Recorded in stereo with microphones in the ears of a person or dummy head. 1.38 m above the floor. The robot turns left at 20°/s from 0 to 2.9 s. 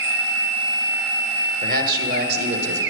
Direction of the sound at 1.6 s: 40° right (ahead or behind).